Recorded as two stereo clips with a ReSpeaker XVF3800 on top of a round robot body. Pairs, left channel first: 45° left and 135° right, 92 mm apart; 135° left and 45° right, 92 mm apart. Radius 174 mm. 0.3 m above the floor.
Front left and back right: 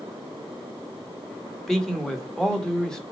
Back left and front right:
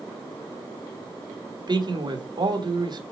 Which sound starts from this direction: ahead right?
A man speaking, at 1.7 s.